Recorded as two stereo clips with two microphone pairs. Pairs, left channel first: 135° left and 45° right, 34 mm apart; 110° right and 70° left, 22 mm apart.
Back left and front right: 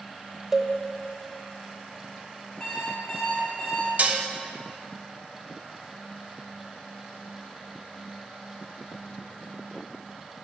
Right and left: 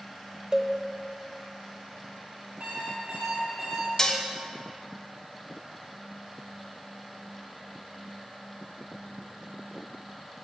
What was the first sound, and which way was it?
A cowbell, 30° left.